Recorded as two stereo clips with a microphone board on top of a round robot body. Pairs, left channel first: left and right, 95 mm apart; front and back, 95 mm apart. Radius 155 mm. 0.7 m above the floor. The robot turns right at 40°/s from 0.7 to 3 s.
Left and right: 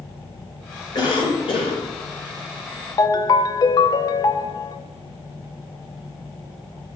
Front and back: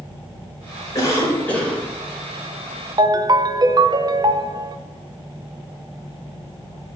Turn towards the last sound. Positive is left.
turn(degrees=140)